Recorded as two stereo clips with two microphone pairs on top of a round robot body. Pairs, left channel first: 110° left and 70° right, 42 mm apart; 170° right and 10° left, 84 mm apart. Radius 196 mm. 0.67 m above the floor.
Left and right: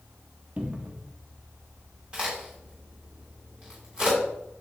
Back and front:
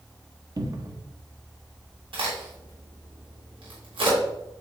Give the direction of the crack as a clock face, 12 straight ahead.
12 o'clock.